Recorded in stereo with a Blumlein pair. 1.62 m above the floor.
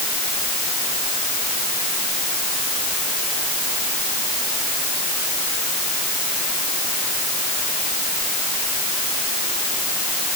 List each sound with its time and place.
Only background noise.